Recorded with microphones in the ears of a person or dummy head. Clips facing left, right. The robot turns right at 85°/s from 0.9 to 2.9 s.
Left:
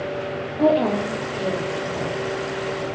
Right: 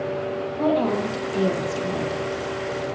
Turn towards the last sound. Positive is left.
turn(degrees=-15)